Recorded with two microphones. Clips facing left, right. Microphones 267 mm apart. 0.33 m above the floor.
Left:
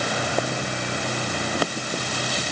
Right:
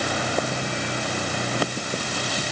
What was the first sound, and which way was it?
Only background noise.